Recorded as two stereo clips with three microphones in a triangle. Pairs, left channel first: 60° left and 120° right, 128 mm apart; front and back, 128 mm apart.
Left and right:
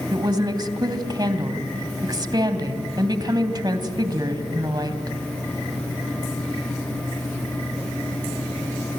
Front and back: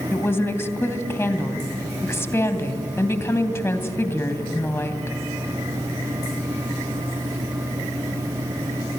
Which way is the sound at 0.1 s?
70° right.